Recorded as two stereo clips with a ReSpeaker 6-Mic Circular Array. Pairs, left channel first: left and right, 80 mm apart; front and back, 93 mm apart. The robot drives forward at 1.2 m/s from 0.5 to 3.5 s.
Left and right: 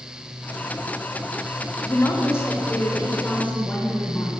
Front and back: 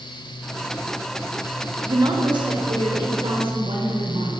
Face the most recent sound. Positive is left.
turn(degrees=160)